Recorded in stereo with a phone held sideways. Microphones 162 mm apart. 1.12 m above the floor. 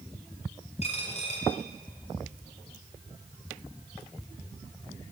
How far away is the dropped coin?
About 3.5 m.